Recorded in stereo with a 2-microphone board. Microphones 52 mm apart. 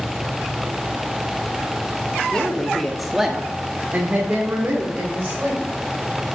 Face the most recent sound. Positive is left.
turn(degrees=-30)  # may be behind; listen again after turning